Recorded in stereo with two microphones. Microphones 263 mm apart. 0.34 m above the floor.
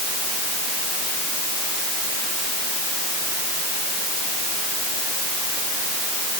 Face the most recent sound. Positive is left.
No sound to turn to.